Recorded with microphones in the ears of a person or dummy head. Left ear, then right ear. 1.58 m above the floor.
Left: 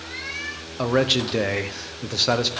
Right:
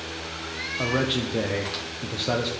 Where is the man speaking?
50° left (ahead or behind), 0.8 m.